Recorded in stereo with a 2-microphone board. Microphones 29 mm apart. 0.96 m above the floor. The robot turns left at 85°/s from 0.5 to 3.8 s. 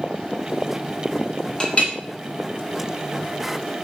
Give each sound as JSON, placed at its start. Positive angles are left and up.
{"t": 1.6, "sound": "a clink", "side_deg": 35, "distance_m": 0.6}